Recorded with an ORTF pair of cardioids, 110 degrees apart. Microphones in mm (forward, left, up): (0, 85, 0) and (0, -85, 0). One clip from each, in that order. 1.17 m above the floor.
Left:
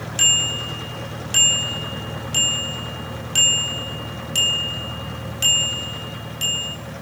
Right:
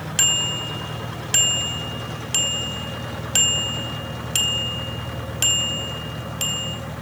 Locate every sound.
0.2 s a bicycle bell: 30° right, 4 m